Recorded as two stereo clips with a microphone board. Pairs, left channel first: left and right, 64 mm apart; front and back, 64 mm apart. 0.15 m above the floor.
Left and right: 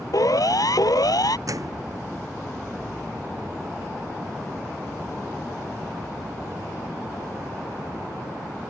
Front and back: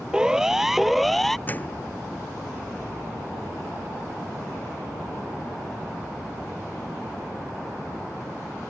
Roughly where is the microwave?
Ahead right.